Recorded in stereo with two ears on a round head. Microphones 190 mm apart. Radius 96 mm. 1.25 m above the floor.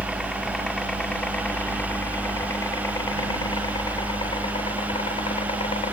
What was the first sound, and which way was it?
A helicopter, centre (ahead or behind).